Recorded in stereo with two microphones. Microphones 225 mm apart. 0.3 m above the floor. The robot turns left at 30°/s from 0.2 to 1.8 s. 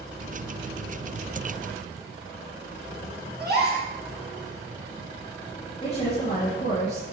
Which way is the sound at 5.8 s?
30° left (ahead or behind).